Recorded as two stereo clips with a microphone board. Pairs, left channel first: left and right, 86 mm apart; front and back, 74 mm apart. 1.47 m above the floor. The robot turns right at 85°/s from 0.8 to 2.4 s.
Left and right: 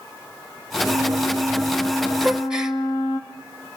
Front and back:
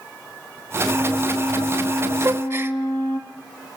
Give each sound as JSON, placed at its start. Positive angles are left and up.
{"t": 0.8, "sound": "a flute", "azimuth_deg": -85, "distance_m": 2.5}
{"t": 2.2, "sound": "a gasp", "azimuth_deg": 175, "distance_m": 1.5}